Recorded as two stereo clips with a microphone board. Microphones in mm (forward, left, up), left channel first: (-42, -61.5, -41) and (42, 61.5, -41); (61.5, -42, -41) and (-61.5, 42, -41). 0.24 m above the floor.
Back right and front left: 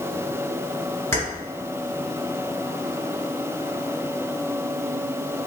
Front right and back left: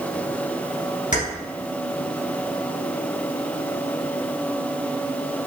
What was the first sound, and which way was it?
Keys jangling, 55° right.